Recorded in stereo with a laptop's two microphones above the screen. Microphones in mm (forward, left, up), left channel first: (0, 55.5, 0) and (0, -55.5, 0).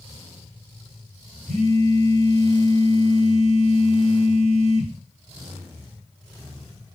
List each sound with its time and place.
1.5 s a phone buzzing: 85° right, 3.5 m